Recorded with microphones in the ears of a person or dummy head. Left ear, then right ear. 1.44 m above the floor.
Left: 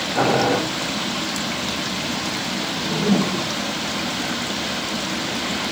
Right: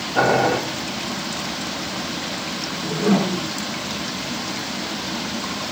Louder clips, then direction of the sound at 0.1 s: Right 2 dB; 45° right (ahead or behind).